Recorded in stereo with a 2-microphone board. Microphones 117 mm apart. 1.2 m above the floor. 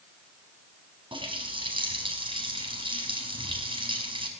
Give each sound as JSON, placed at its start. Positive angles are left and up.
{"t": 1.1, "sound": "a running tap", "side_deg": -45, "distance_m": 5.5}